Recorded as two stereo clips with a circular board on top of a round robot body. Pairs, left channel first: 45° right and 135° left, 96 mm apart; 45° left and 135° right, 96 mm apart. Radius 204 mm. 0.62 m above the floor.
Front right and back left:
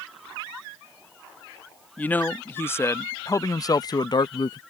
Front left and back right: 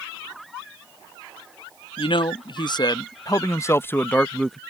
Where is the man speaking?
25° left; by 4.6 s 45° right.